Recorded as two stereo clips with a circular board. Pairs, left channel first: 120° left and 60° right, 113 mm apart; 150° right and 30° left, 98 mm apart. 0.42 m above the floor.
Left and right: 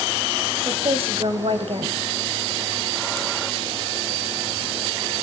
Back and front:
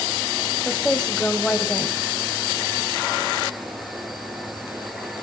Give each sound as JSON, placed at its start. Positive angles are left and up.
{"t": 0.7, "sound": "a woman speaking", "azimuth_deg": -70, "distance_m": 2.5}